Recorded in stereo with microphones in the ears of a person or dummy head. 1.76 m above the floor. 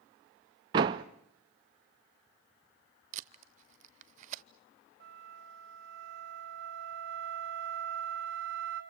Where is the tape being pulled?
45° right (ahead or behind), 0.6 m.